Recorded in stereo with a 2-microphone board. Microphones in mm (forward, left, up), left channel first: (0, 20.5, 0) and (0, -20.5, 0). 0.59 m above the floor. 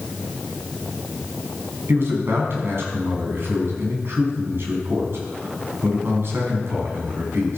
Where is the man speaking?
70° right (ahead or behind), 5 m.